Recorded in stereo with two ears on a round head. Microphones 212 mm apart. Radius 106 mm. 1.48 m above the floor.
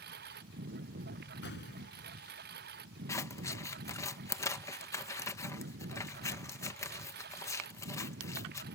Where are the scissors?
10° left (ahead or behind).